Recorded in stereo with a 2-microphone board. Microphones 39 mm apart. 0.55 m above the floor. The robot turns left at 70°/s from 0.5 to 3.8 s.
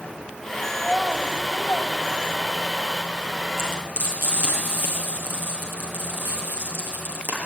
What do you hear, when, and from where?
0.8 s a child speaking: 5° right (ahead or behind), 3 m; by 2.9 s 35° left (ahead or behind), 3 m
3.6 s frying: 50° right (ahead or behind), 8 m; by 7.4 s 65° right (ahead or behind), 8 m